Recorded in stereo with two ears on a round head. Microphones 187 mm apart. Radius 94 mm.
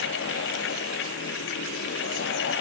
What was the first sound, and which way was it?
Only background noise.